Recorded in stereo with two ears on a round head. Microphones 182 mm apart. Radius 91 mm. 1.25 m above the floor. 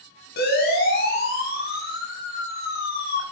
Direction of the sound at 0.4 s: 50° left (ahead or behind).